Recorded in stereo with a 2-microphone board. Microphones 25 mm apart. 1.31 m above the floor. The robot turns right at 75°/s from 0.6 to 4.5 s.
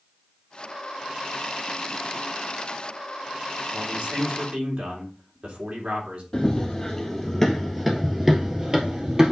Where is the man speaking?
120° right, 3 m; by 6.2 s 60° right, 3 m.